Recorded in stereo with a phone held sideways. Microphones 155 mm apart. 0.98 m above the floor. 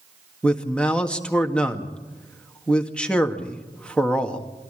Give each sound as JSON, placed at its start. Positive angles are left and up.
{"t": 0.4, "sound": "a man speaking", "side_deg": 5, "distance_m": 1.8}